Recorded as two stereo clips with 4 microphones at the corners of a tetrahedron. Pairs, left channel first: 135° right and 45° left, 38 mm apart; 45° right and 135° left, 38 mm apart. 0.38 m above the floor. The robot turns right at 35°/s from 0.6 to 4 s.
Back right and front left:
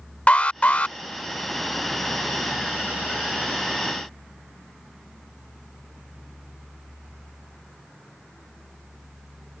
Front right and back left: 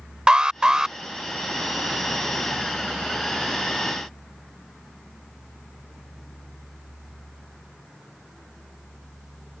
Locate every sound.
0.3 s an alarm: 165° right; by 1.0 s 155° right